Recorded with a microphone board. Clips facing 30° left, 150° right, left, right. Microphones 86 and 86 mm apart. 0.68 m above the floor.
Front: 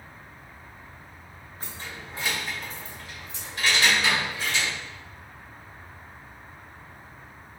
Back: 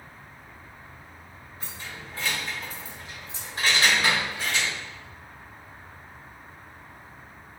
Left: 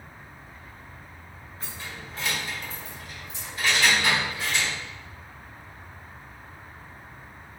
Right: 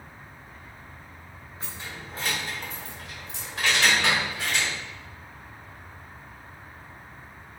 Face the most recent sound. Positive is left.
turn(degrees=-120)